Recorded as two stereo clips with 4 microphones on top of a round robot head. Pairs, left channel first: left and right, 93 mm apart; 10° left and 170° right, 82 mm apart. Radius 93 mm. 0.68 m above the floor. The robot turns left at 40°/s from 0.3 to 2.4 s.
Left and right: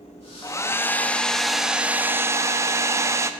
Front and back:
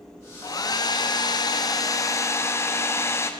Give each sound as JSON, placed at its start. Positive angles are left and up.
{"t": 0.4, "sound": "a hair dryer", "azimuth_deg": 45, "distance_m": 0.8}